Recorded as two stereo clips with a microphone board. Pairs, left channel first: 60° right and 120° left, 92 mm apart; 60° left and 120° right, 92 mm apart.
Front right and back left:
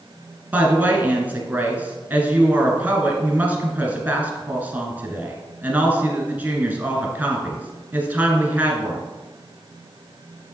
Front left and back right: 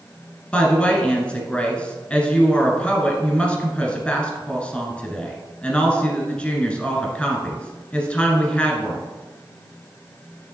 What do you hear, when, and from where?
0.5 s a woman speaking: 105° left, 1.1 m